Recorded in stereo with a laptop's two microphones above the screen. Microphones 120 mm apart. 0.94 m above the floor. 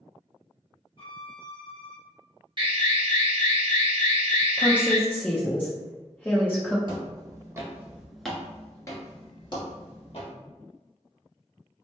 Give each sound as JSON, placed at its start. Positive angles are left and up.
{"t": 1.0, "sound": "a violin", "side_deg": 45, "distance_m": 0.9}
{"t": 2.6, "sound": "an alarm", "side_deg": -45, "distance_m": 0.8}
{"t": 4.6, "sound": "a woman speaking", "side_deg": 15, "distance_m": 0.6}
{"t": 6.9, "sound": "footsteps", "side_deg": -45, "distance_m": 1.2}